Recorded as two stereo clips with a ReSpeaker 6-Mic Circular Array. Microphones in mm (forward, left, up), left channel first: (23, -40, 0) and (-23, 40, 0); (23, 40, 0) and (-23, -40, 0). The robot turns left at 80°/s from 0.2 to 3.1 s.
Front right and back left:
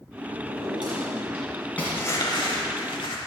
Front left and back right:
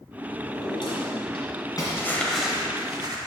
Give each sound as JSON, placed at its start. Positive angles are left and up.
{"t": 0.4, "sound": "a drawer", "azimuth_deg": 120, "distance_m": 2.0}
{"t": 1.9, "sound": "crumpling", "azimuth_deg": 5, "distance_m": 1.0}